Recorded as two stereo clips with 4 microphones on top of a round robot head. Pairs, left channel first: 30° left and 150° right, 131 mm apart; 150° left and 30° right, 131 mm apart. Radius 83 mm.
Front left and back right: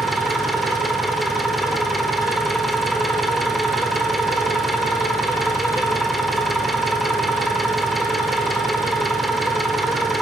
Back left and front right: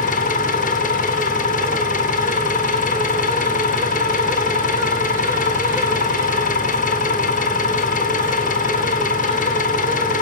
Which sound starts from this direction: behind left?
An engine running, at 0.0 s.